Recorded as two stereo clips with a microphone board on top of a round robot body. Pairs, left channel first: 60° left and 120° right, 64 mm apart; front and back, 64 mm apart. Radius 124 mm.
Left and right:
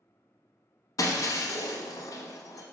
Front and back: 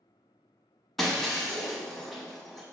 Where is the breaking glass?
90° left, 0.5 m.